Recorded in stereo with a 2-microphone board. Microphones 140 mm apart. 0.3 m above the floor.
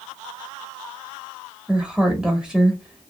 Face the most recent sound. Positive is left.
turn(degrees=-5)  # may be behind; listen again after turning